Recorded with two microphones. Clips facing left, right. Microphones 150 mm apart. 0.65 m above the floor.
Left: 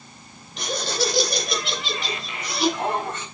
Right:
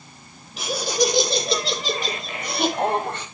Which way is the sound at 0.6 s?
5° right (ahead or behind).